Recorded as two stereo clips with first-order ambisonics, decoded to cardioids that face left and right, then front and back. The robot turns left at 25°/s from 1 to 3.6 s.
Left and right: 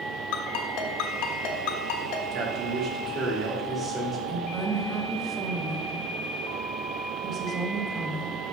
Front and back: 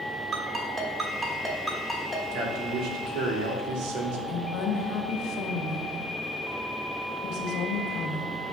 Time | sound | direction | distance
0.3 | a ringtone | 115° left | 1.4 m
2.3 | a man speaking | 135° right | 1.8 m
4.3 | a woman speaking | 35° right | 1.1 m